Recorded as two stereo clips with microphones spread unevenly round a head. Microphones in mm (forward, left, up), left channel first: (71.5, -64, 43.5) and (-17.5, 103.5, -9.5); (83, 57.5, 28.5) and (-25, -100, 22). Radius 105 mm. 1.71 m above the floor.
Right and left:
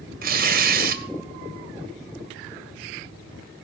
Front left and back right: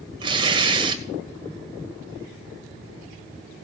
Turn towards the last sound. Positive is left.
turn(degrees=165)